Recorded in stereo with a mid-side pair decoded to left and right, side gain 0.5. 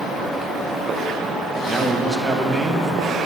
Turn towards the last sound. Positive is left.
turn(degrees=-5)